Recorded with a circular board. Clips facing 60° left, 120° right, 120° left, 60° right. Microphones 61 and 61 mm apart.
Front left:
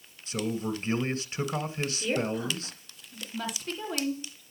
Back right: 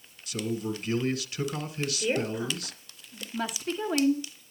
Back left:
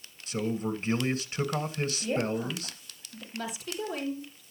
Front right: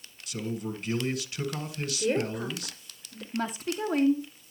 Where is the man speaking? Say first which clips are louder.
Even, back left 3 dB; 90° left, 1.8 m.